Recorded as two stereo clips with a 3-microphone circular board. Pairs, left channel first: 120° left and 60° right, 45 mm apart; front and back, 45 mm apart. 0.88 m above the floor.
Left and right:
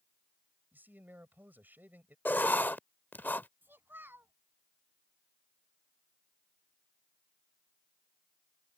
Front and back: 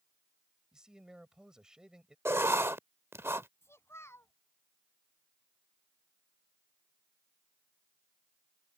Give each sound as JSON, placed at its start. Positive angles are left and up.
{"t": 0.7, "sound": "a man speaking", "azimuth_deg": -105}
{"t": 2.2, "sound": "writing", "azimuth_deg": 165}
{"t": 3.6, "sound": "a child speaking", "azimuth_deg": -20}